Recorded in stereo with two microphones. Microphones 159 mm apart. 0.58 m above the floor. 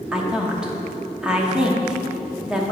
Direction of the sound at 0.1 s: 5° right (ahead or behind).